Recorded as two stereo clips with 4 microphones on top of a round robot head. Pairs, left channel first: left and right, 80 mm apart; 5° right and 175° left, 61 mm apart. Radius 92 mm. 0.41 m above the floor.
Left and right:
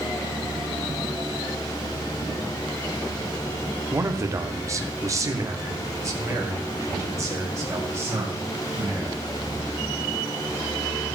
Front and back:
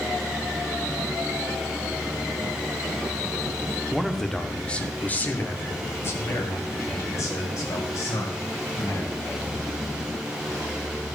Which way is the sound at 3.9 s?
100° right.